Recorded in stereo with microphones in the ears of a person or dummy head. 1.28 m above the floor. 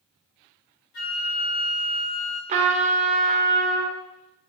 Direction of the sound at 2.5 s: 25° right (ahead or behind).